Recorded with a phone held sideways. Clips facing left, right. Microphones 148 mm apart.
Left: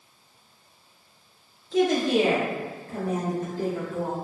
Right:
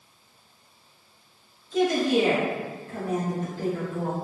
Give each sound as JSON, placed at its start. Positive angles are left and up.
{"t": 1.7, "sound": "a woman speaking", "side_deg": 75, "distance_m": 1.4}